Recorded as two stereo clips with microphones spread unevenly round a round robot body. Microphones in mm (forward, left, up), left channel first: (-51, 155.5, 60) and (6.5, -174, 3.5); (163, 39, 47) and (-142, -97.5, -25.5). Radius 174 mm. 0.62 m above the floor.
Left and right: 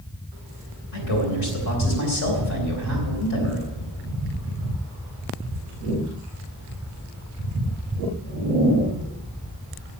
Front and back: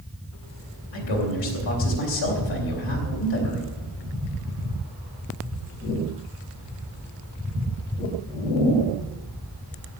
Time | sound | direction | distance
0.9 | a man speaking | 55° left | 3.5 m